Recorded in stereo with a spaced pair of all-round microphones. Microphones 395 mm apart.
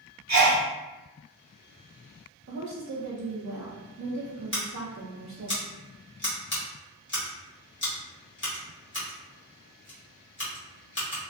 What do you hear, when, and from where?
0.3 s a sneeze: 40° right (ahead or behind), 1.1 m
2.5 s a woman speaking: 45° right (ahead or behind), 0.7 m
4.5 s scissors: 30° left (ahead or behind), 1.0 m